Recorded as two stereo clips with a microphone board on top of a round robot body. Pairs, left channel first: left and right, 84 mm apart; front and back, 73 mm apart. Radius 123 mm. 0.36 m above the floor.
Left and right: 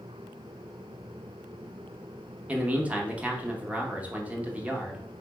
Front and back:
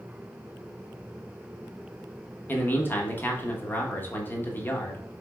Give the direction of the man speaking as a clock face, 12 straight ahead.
1 o'clock.